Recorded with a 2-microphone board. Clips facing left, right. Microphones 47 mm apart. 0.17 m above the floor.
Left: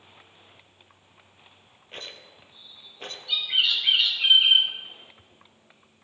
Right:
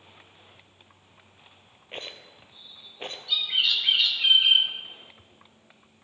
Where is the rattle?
25° right (ahead or behind), 0.8 m.